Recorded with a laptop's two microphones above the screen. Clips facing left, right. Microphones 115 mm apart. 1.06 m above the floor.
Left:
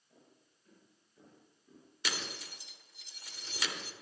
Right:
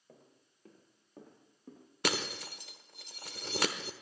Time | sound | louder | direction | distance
0.1 | footsteps | right 4 dB | 75° right (ahead or behind) | 5 m
2.0 | breaking glass | right 7 dB | 55° right (ahead or behind) | 1.1 m